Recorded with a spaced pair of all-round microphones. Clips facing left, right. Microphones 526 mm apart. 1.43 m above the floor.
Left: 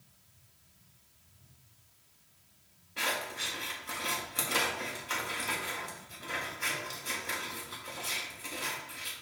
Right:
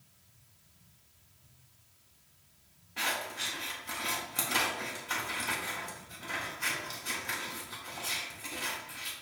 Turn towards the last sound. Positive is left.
turn(degrees=-10)  # may be behind; listen again after turning